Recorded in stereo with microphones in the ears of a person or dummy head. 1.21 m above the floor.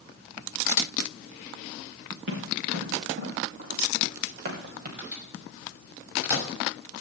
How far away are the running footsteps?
About 4.5 m.